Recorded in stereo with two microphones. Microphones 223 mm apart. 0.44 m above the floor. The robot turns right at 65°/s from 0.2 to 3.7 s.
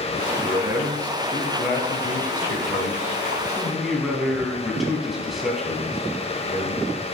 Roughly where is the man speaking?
Ahead right.